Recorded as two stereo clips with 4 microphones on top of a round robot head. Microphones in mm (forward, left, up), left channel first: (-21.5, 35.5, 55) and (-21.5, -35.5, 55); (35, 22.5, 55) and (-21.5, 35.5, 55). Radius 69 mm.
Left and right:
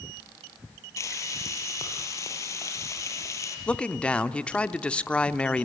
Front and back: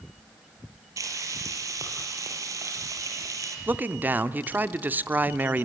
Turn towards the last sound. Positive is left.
turn(degrees=150)